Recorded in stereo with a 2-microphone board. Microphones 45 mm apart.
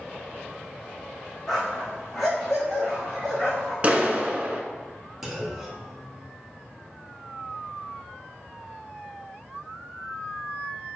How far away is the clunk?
About 1.3 m.